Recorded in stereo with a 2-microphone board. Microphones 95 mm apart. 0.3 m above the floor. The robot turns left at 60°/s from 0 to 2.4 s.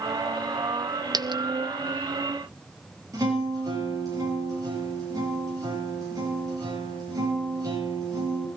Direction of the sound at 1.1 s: 45° right (ahead or behind).